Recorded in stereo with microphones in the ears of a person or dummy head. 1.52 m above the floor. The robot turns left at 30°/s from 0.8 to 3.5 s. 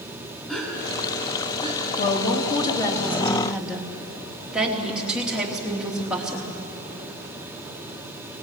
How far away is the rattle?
No rattle in this recording.